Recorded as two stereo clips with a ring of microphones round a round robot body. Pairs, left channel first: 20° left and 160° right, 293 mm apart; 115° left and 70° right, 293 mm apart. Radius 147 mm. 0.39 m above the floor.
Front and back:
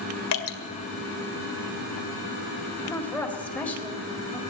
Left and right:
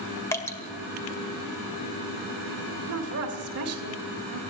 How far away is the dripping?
About 1.9 m.